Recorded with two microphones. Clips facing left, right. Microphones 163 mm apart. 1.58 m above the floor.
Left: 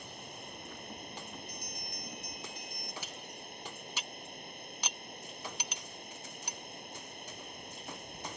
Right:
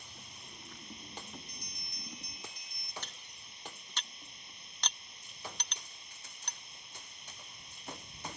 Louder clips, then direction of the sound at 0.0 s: Left 8 dB; 55° left (ahead or behind).